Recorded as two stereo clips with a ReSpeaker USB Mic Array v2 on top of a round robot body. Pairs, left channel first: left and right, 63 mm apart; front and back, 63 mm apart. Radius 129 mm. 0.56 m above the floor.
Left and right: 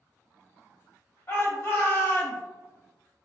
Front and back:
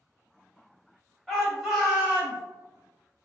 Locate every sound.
1.3 s a shout: 80° left, 1.6 m; by 2.4 s 120° left, 1.6 m